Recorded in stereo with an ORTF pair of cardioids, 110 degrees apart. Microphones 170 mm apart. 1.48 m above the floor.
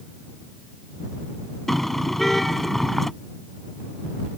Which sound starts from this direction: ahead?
A car horn, at 1.7 s.